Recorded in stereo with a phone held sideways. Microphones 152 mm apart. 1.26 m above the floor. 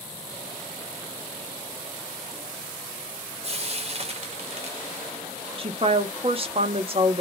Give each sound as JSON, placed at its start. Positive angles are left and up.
{"t": 3.4, "sound": "frying", "side_deg": -40, "distance_m": 0.7}
{"t": 5.6, "sound": "a woman speaking", "side_deg": -40, "distance_m": 0.8}